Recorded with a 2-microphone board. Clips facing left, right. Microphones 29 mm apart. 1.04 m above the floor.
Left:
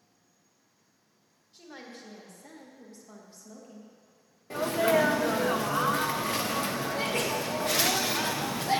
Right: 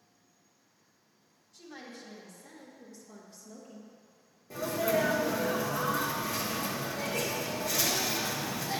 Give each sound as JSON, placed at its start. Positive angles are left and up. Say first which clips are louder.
{"t": 1.5, "sound": "a woman speaking", "louder": "left 1 dB", "side_deg": 50, "distance_m": 1.6}
{"t": 4.5, "sound": "a sneeze", "louder": "left 5 dB", "side_deg": 65, "distance_m": 0.5}